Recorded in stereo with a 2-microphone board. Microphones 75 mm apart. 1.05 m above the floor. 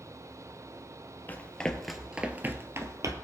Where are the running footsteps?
25° left (ahead or behind), 1.6 m; by 3.1 s 50° right (ahead or behind), 1.7 m.